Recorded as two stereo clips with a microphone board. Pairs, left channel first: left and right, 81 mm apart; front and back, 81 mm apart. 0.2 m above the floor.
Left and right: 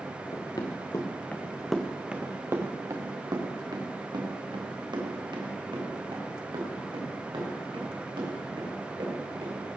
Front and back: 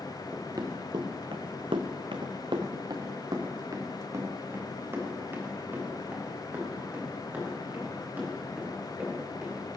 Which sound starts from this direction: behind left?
Running footsteps, at 0.3 s.